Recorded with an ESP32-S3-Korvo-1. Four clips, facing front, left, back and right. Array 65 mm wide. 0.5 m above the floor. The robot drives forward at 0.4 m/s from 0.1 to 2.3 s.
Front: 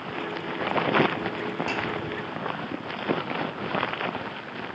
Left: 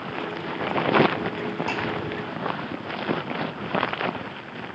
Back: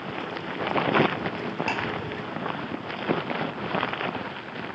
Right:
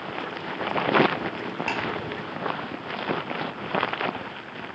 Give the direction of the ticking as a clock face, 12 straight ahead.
4 o'clock.